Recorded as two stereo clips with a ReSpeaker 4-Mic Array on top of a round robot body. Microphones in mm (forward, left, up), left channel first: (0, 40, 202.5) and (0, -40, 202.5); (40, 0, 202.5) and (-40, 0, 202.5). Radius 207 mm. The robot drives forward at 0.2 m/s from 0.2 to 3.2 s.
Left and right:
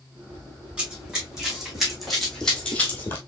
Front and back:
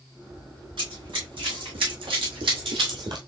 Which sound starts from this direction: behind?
Running footsteps, at 0.8 s.